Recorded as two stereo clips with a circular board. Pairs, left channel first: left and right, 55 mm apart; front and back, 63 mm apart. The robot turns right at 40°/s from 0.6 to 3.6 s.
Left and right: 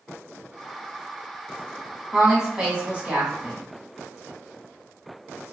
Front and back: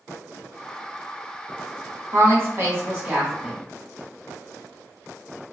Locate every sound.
2.1 s a woman speaking: 175° right, 1.3 m; by 3.6 s 115° right, 1.3 m